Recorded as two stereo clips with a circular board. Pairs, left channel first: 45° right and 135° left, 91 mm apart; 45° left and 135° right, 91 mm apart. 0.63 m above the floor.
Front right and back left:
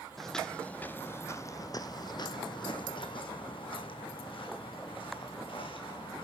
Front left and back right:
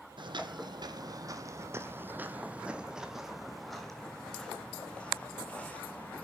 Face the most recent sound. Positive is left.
turn(degrees=-30)